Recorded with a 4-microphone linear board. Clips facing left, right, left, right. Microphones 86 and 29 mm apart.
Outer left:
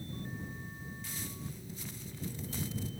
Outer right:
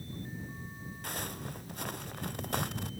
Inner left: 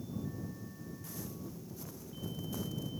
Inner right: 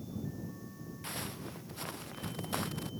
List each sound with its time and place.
1.0 s footsteps: 65° right (ahead or behind); by 2.9 s 75° right (ahead or behind)